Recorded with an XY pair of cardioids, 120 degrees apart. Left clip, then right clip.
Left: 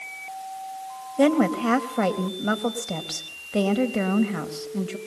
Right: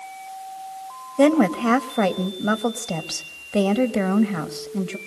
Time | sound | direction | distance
1.2 | a woman speaking | 20° right | 3 m